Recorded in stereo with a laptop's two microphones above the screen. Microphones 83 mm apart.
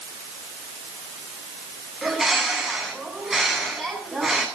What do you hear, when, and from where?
2.0 s a bird: 5° right (ahead or behind), 7.5 m